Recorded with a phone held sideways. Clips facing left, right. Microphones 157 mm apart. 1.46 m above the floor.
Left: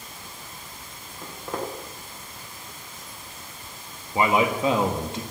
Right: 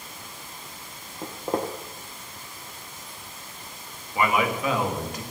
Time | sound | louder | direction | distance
1.2 | footsteps | right 4 dB | 30° right (ahead or behind) | 2.5 m
4.2 | a man speaking | left 2 dB | 30° left (ahead or behind) | 2.0 m